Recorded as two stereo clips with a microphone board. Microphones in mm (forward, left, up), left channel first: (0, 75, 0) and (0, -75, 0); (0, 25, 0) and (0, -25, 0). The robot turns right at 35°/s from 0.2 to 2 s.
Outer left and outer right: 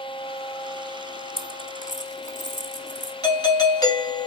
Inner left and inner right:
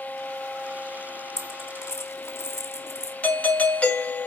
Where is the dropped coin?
75° left (ahead or behind), 1.1 m; by 3.1 s 55° left (ahead or behind), 1.1 m.